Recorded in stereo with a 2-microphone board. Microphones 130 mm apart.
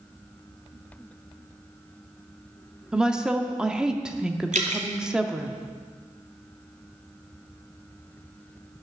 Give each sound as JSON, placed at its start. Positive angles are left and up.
{"t": 2.9, "sound": "a woman speaking", "side_deg": -5, "distance_m": 0.7}
{"t": 4.5, "sound": "dripping", "side_deg": -70, "distance_m": 2.0}